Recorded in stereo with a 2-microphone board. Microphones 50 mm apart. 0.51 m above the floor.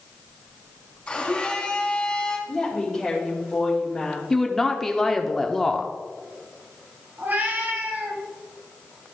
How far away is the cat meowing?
About 1.3 m.